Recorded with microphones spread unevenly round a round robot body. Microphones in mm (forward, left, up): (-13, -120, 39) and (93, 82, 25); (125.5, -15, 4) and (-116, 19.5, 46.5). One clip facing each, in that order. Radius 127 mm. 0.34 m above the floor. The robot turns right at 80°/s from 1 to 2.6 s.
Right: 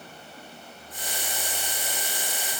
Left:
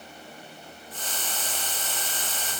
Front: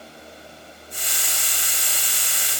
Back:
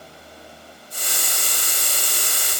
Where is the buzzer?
I don't hear a buzzer.